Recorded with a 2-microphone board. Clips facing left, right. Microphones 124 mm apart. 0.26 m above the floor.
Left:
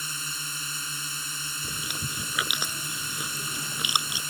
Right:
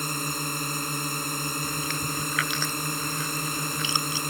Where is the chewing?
15° left (ahead or behind).